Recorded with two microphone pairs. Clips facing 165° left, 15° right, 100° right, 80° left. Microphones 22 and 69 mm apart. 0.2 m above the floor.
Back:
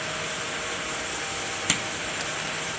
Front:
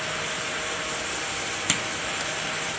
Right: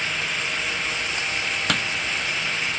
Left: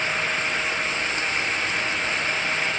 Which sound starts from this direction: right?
Hammering, at 1.7 s.